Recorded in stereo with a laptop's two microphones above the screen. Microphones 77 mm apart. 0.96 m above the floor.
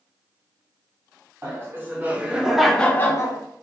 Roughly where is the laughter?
Right.